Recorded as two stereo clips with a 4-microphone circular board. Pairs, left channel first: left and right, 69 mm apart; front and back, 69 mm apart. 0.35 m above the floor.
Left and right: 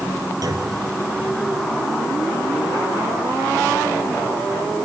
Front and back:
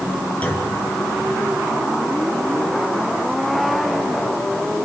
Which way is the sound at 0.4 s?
70° right.